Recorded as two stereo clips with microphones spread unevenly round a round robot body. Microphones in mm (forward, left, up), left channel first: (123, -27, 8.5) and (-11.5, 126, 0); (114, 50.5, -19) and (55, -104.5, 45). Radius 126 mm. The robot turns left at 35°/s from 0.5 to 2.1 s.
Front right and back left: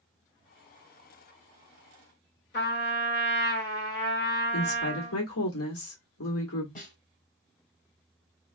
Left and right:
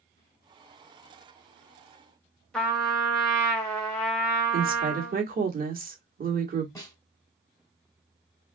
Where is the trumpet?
15° right, 1.5 m.